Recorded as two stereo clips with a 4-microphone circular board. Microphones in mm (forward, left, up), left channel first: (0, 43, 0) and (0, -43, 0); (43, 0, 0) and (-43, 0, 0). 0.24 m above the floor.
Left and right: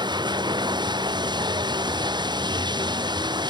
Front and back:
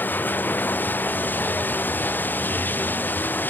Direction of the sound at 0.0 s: 65° right.